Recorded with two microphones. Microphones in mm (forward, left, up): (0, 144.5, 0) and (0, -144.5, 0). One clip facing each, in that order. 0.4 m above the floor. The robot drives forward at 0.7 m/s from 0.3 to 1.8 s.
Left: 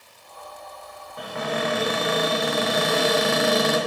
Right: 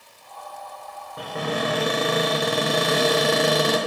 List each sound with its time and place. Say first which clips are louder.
1.2 s a cupboard door: right 1 dB; 35° right (ahead or behind), 0.6 m; by 3.8 s 40° right (ahead or behind), 0.5 m